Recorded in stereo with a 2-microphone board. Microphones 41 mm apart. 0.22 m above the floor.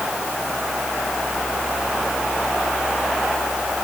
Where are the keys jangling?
No keys jangling in this recording.